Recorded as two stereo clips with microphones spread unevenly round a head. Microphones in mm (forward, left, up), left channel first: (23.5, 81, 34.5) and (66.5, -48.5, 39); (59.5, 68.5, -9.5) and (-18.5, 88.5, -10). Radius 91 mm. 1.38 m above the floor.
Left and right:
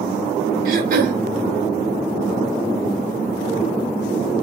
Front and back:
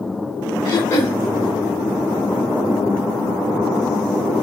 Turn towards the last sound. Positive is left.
turn(degrees=-70)